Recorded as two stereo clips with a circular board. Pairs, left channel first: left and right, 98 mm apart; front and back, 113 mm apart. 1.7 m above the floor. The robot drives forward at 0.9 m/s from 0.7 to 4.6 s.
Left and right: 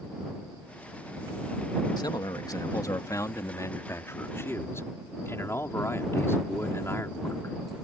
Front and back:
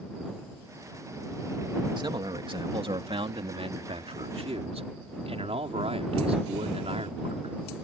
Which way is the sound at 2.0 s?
135° left.